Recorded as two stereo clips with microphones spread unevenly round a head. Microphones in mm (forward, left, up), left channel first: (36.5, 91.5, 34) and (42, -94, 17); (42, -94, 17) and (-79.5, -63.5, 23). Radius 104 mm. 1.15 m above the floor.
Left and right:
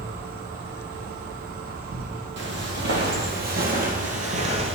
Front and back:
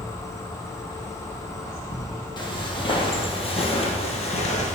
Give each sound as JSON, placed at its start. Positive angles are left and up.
{"t": 0.0, "sound": "an insect", "azimuth_deg": -75, "distance_m": 1.5}
{"t": 2.4, "sound": "footsteps", "azimuth_deg": -65, "distance_m": 2.5}